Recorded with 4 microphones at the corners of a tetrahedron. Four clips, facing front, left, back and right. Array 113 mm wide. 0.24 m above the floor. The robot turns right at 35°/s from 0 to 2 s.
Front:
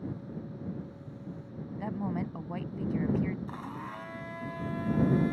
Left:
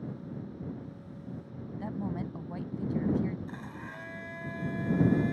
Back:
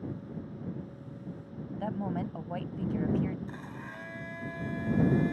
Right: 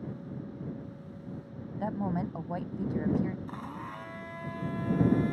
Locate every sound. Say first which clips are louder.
1.8 s a woman speaking: right 4 dB, even; 105° right; by 3.4 s 100° right
3.5 s a blender: right 2 dB, front 3 dB; 45° right